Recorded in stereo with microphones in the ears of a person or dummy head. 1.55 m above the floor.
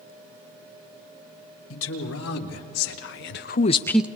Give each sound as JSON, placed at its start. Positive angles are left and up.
{"t": 1.7, "sound": "a man speaking", "side_deg": 85, "distance_m": 2.5}